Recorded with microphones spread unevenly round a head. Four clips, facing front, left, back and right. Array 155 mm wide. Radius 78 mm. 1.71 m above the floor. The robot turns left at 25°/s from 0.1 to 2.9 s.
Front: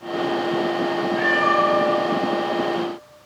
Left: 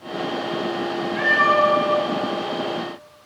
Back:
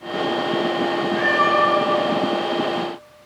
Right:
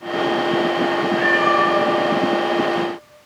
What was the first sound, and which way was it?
A cat meowing, 140° left.